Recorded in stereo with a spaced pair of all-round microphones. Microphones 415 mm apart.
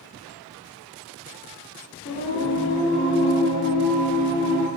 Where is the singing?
30° left (ahead or behind), 1.3 m.